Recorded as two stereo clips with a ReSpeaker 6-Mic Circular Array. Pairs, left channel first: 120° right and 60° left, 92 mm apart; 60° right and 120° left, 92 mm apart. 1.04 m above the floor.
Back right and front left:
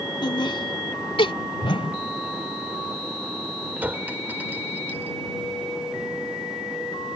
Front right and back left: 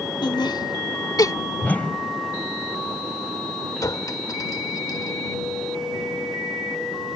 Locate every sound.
0.2 s laughter: 90° right; by 1.3 s 105° right
1.6 s a whoosh: 130° right
3.8 s a clink: 10° right